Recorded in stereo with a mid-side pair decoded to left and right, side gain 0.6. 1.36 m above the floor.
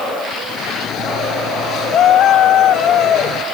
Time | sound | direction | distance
0.5 | a shout | 55° left | ?